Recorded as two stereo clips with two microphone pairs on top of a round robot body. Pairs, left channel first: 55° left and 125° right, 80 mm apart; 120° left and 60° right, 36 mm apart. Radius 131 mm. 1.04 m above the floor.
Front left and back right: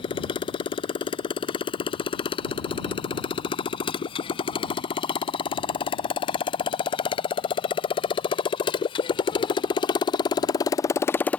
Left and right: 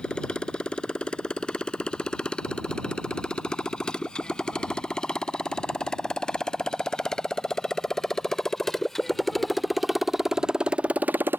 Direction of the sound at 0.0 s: 50° left.